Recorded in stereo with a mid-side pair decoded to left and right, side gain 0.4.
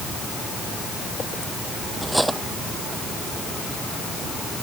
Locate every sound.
2.0 s cutlery clinking: 10° right